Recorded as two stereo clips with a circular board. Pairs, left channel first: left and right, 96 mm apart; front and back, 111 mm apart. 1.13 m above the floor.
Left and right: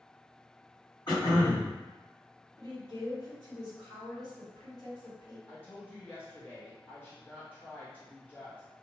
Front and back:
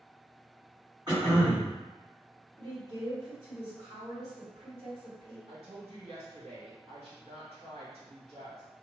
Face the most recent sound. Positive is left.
turn(degrees=160)